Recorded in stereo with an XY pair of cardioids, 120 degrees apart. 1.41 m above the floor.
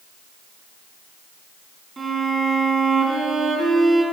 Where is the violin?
25° right, 2.5 m.